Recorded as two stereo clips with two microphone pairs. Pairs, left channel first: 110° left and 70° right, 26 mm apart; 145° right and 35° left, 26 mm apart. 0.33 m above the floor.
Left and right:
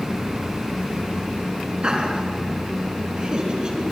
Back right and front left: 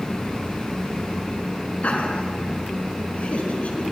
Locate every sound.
1.8 s laughter: 120° right, 5 m